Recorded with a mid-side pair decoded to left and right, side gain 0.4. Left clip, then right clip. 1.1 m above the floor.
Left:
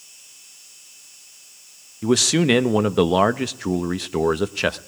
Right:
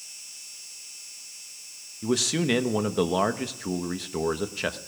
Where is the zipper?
I don't hear a zipper.